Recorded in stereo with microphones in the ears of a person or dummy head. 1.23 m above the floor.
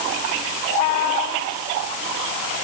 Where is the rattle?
I don't hear a rattle.